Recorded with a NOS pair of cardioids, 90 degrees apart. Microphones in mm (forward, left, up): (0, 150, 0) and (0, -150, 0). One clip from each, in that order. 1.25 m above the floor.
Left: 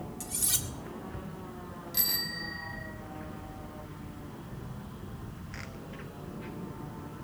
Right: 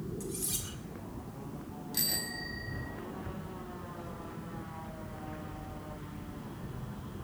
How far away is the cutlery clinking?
About 1.9 m.